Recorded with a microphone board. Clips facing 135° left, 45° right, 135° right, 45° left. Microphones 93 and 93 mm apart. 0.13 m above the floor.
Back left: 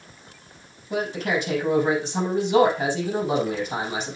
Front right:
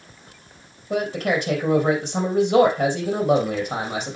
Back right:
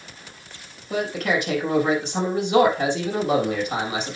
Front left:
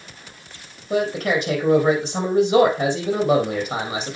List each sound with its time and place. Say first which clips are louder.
0.9 s a man speaking: front right 3 dB, front left 3 dB; 10° right, 3.5 m